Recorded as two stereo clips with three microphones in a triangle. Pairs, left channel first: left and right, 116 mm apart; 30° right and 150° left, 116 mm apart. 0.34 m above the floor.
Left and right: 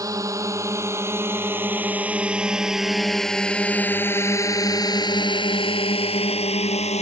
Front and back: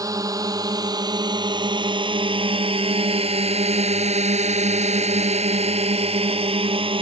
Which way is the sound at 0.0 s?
150° right.